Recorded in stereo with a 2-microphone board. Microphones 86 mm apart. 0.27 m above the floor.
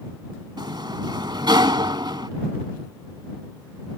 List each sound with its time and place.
0.6 s a sliding door: 60° right (ahead or behind)